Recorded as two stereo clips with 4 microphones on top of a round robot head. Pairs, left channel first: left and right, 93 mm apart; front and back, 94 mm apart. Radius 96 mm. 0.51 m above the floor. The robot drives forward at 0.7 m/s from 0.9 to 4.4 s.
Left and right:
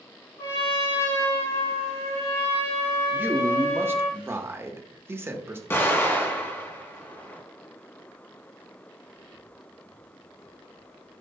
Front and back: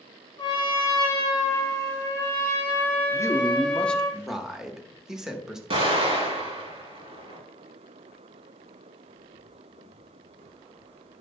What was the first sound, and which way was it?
A trumpet, 40° left.